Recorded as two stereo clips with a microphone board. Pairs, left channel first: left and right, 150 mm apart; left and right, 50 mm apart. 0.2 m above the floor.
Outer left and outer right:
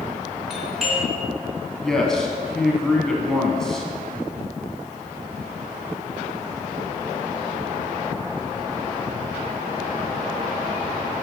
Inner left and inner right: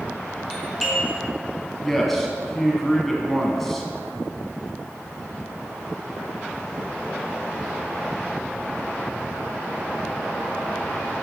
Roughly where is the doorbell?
Centre.